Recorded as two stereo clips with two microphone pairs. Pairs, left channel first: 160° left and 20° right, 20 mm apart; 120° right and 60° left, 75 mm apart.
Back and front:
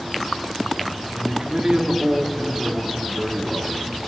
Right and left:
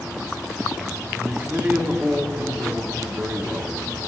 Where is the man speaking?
Straight ahead, 1.3 m.